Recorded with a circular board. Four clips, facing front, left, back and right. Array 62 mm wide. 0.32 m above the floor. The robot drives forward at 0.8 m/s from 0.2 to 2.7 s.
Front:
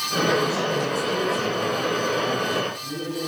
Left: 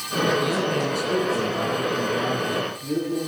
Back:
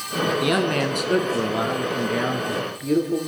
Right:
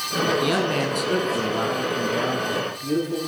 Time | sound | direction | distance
0.4 | a man speaking | 155° right | 3 m